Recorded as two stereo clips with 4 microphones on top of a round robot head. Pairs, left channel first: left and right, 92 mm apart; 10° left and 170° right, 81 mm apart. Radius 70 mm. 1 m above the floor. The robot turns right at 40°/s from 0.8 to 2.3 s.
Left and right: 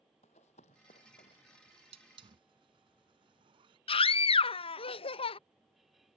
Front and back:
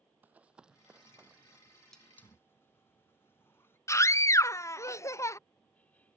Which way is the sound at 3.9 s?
70° left.